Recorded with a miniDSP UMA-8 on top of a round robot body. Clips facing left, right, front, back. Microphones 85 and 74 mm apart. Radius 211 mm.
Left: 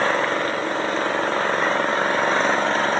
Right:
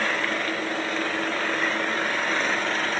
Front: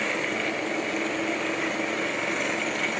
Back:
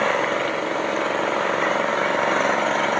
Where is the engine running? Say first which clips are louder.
Left 6 dB, back 7 dB; 145° left.